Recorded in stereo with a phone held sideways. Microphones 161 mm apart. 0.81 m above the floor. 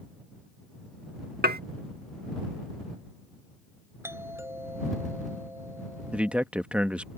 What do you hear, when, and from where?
1.4 s dishes clattering: 80° right
4.0 s a doorbell: 15° right (ahead or behind)
6.1 s a man speaking: 10° right (ahead or behind)